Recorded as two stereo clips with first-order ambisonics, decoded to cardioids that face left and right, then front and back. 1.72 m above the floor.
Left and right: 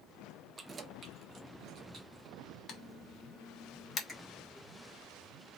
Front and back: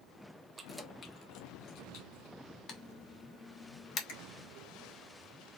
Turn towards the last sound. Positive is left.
turn(degrees=10)